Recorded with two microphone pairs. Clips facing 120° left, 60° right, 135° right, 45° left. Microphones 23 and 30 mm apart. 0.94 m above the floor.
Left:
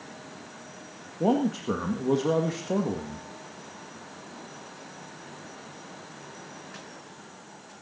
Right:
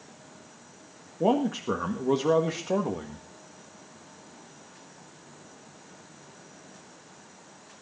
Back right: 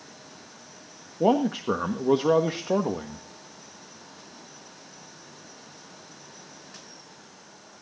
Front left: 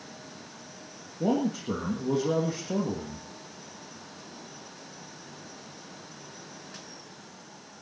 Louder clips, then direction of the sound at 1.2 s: Even, back right 5 dB; 140° right.